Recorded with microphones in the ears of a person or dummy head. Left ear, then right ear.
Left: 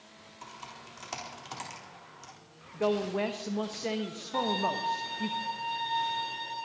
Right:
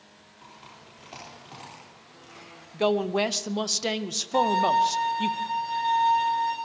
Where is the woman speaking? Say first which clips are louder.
Right 5 dB; 65° right (ahead or behind), 1.0 m.